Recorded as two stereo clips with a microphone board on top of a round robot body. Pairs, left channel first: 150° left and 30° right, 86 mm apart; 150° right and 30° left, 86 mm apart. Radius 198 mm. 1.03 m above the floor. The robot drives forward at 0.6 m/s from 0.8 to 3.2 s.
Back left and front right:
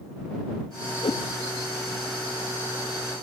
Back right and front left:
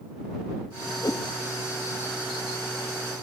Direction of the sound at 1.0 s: 165° left.